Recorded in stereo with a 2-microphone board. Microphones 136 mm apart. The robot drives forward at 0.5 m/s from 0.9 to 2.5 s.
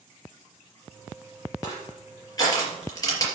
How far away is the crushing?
About 4 m.